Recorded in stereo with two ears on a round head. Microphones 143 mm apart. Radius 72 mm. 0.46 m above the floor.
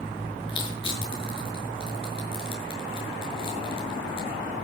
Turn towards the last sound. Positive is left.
turn(degrees=35)  # may be behind; listen again after turning